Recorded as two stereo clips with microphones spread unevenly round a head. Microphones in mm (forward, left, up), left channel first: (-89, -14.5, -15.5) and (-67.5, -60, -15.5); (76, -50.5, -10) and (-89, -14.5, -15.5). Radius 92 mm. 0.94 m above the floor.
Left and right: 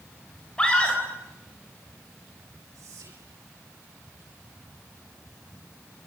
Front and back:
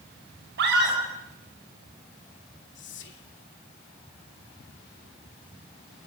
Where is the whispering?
30° right, 3.5 m.